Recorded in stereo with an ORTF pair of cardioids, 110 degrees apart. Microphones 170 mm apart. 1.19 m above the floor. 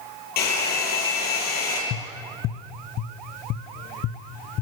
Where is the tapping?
60° left, 0.9 m.